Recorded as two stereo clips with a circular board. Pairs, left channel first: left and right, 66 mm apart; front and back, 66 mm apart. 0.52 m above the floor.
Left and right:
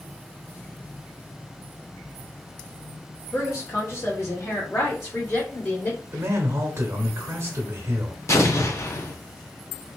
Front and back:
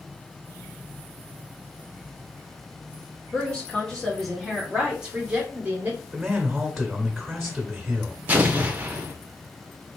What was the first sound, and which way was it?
A woman speaking, 65° left.